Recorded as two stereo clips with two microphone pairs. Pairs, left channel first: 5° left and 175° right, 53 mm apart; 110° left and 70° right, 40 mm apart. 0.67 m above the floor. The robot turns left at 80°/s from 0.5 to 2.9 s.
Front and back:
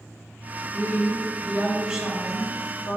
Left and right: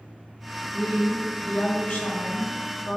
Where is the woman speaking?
160° right, 1.5 m; by 3.0 s 30° left, 1.5 m.